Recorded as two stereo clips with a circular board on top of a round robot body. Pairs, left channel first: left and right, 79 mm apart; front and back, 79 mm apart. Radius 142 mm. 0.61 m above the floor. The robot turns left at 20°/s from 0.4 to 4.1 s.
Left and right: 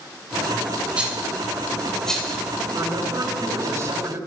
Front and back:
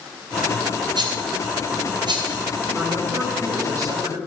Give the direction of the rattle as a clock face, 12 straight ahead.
5 o'clock.